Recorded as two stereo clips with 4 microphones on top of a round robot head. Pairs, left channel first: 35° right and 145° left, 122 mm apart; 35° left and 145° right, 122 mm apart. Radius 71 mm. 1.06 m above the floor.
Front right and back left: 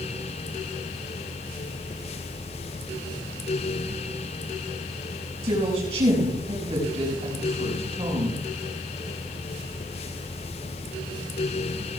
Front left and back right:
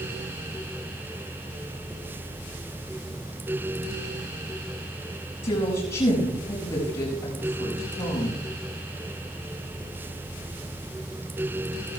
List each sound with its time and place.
5.4 s a woman speaking: 85° left, 6 m